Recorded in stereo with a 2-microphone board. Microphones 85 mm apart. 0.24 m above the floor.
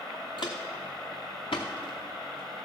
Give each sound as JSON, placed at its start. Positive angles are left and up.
{"t": 0.4, "sound": "footsteps", "side_deg": 60, "distance_m": 1.3}